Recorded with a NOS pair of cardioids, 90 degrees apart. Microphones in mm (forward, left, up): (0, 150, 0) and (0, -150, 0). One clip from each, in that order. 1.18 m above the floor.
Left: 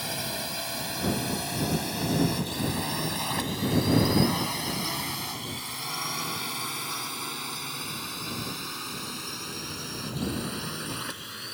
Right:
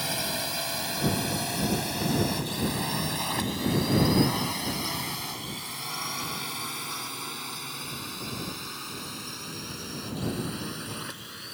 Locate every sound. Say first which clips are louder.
0.0 s a drone: right 2 dB; 20° right; by 11.6 s 25° left